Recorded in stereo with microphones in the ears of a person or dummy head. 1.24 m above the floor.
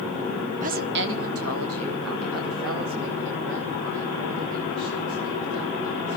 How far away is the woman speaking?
About 0.9 m.